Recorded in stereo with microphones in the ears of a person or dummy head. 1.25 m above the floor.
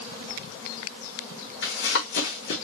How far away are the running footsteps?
About 4 m.